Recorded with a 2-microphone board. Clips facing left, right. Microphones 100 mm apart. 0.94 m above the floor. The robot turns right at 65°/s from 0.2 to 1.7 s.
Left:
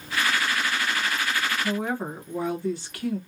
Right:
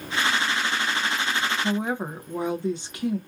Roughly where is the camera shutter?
No camera shutter in this recording.